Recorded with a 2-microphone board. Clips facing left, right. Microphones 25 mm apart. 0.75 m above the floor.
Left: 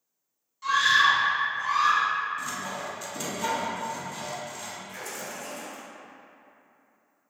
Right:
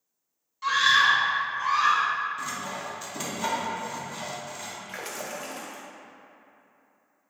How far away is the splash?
About 0.7 m.